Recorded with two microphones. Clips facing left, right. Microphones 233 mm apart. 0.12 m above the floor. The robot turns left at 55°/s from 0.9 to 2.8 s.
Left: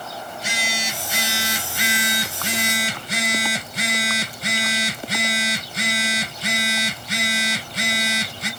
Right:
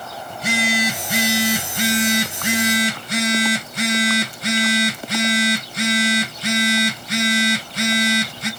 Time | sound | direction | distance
0.3 | a phone buzzing | 80° right | 1.5 m